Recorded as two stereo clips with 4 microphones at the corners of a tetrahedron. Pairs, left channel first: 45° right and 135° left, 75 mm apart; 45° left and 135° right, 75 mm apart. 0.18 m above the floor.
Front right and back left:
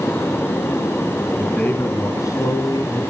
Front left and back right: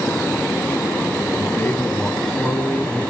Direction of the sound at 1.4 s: 15° left.